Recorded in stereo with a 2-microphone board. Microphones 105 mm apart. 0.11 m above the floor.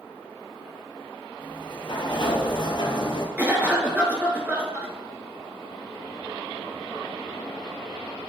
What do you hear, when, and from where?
1.4 s a sliding door: 50° left (ahead or behind), 1.1 m
3.4 s a cough: 15° right (ahead or behind), 1.6 m